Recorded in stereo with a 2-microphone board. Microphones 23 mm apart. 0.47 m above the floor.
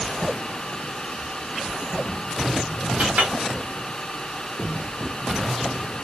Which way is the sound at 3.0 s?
70° right (ahead or behind).